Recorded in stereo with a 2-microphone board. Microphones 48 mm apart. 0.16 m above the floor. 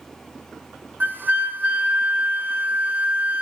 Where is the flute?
45° right (ahead or behind), 2 m.